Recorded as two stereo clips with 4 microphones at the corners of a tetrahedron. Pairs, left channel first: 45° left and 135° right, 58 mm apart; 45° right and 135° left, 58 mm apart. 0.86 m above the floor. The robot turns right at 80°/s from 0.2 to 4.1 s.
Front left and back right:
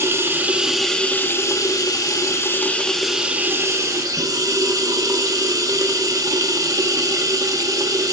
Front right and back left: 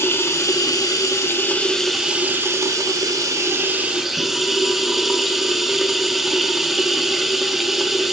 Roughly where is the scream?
I don't hear a scream.